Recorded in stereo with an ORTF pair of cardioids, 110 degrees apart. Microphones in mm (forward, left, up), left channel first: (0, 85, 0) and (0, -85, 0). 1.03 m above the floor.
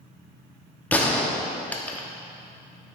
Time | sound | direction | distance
0.9 | a gunshot | 10° left | 0.9 m